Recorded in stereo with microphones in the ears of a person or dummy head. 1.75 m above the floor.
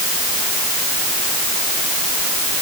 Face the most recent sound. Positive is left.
No sound to turn to.